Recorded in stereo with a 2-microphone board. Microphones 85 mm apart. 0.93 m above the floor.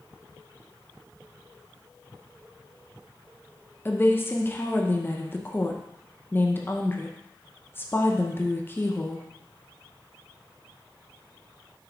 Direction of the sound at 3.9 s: 25° left (ahead or behind).